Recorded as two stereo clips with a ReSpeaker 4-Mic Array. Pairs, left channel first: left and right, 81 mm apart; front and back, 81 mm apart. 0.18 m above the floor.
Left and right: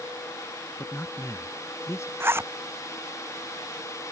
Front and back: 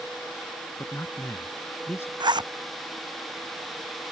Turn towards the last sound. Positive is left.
turn(degrees=-150)